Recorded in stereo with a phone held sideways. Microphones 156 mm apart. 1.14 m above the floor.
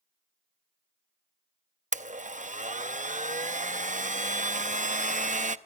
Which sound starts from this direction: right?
A blender, at 1.9 s.